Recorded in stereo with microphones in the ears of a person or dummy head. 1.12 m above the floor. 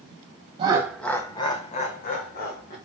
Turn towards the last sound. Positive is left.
turn(degrees=50)  # may be behind; listen again after turning